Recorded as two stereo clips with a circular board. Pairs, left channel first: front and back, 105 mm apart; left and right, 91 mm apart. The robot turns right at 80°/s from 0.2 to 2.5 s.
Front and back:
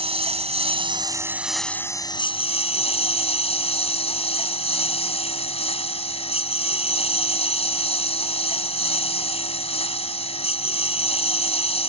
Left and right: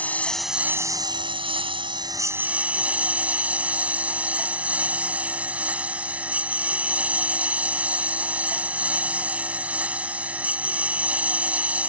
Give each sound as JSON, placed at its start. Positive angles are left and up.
{"t": 0.0, "sound": "a lawn mower", "azimuth_deg": 160}